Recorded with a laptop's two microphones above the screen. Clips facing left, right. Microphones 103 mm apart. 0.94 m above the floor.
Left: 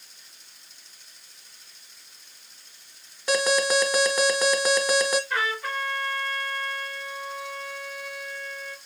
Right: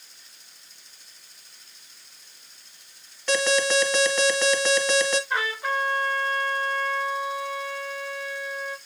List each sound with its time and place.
3.3 s an alarm: 10° left (ahead or behind), 1.8 m
5.3 s a trumpet: 20° right (ahead or behind), 1.7 m